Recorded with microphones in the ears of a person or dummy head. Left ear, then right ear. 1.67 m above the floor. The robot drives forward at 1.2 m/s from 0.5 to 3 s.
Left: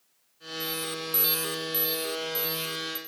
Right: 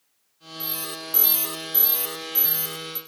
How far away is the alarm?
About 0.9 m.